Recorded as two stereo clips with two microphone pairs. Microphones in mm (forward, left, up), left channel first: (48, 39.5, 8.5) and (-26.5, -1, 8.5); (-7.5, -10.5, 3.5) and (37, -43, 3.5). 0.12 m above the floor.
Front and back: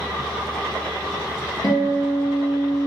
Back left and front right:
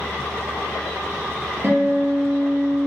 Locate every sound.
1.6 s a guitar: straight ahead, 1.0 m